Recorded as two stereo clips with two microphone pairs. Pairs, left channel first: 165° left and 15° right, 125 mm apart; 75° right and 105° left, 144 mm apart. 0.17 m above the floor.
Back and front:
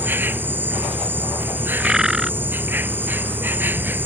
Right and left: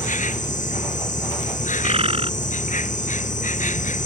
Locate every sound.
0.0 s an insect: 85° right
1.8 s a bird: 70° left